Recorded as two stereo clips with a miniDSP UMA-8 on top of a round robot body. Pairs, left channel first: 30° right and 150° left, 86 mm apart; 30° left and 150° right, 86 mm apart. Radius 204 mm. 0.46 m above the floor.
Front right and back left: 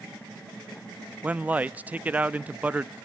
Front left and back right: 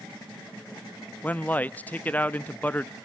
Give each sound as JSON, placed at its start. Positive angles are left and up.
{"t": 1.2, "sound": "a man speaking", "azimuth_deg": 90, "distance_m": 0.8}